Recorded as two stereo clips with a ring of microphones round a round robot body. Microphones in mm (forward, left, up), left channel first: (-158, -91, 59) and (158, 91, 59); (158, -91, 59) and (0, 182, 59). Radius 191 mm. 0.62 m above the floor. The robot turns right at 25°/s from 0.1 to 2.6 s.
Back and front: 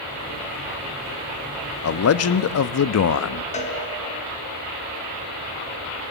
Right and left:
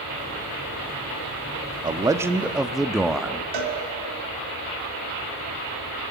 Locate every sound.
1.8 s a man speaking: 170° right, 0.7 m; by 3.4 s 155° right, 0.7 m
3.5 s a cowbell: 140° left, 2.5 m